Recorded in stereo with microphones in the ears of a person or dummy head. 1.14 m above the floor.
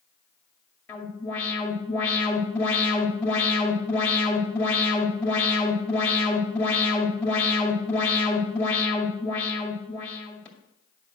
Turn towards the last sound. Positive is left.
turn(degrees=15)  # may be behind; listen again after turning